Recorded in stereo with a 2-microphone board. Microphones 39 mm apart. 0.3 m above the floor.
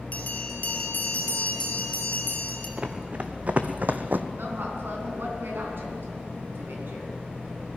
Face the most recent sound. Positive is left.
turn(degrees=-65)  # may be behind; listen again after turning